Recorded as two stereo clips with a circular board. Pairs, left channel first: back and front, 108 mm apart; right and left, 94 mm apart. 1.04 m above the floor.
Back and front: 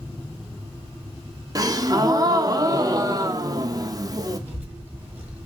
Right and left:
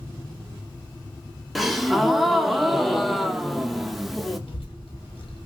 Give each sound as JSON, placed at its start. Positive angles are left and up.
{"t": 1.6, "sound": "a gasp", "azimuth_deg": 0, "distance_m": 0.6}
{"t": 4.5, "sound": "a child speaking", "azimuth_deg": -70, "distance_m": 2.5}